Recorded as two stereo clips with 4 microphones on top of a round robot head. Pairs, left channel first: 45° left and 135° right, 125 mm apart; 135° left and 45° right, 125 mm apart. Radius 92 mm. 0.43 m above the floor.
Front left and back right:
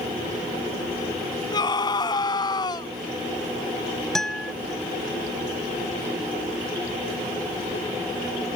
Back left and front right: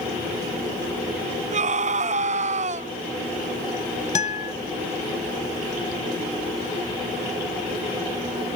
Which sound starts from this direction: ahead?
A scream, at 1.5 s.